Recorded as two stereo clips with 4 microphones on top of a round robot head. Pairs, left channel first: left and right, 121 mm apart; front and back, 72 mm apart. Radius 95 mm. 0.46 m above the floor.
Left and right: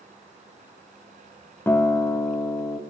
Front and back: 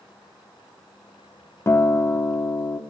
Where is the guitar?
25° left, 0.6 m.